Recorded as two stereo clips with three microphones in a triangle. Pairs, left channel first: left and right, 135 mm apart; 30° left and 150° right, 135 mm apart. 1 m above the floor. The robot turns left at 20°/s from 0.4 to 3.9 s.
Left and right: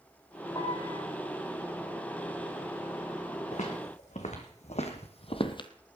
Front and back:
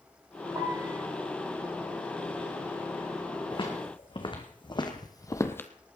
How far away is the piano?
About 6 m.